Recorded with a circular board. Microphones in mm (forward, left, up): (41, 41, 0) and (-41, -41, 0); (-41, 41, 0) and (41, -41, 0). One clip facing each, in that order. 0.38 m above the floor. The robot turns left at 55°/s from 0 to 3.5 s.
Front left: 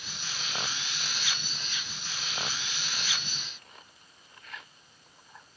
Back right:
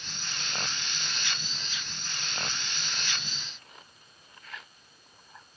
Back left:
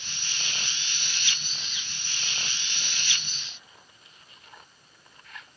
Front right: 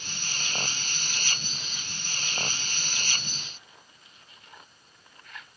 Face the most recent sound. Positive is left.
No sound to turn to.